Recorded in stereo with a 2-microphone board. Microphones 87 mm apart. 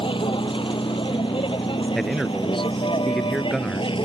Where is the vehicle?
85° left; by 4.1 s 80° left.